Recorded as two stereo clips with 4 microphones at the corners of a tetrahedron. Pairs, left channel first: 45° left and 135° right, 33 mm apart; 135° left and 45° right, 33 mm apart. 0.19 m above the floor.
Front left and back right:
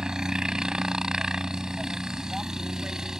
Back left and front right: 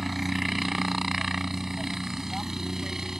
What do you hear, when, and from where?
0.0 s a helicopter: 125° right; by 3.2 s 95° right